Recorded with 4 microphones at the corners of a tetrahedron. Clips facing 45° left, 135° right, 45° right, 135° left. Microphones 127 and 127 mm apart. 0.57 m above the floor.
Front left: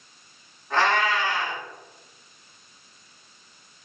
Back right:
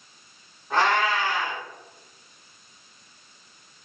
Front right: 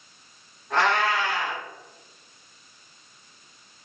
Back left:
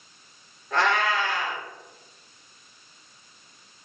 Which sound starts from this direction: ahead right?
A cat meowing, at 0.7 s.